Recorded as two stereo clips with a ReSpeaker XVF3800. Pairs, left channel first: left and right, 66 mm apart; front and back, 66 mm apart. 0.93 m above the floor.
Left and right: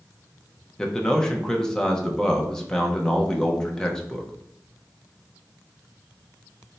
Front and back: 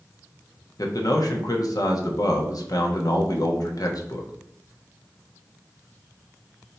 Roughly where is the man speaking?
Ahead.